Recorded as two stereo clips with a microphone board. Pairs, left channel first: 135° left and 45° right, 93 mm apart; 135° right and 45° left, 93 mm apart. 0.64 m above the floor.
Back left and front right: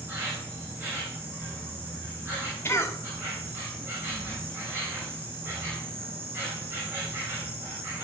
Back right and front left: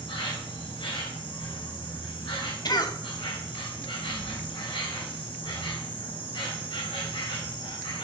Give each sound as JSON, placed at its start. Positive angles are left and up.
{"t": 0.0, "sound": "an insect", "azimuth_deg": -110, "distance_m": 3.5}
{"t": 2.6, "sound": "a cough", "azimuth_deg": -165, "distance_m": 1.2}